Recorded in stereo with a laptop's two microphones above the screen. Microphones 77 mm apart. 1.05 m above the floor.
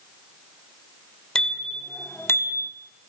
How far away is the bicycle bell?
About 2.5 m.